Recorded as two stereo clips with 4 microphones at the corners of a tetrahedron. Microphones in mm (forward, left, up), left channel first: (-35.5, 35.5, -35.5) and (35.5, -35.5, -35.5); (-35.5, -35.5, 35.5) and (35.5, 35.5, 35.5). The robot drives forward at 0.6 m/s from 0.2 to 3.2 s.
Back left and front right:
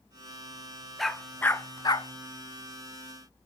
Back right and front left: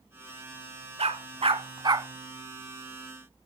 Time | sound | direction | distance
1.0 | a dog barking | 45° left | 0.8 m